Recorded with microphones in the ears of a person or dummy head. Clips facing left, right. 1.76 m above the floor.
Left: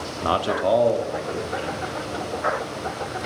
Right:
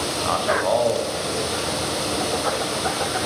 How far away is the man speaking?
About 0.7 m.